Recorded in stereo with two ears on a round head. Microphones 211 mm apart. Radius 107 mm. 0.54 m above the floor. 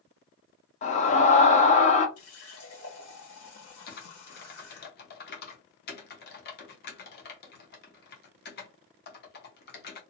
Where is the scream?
30° left (ahead or behind), 0.7 m.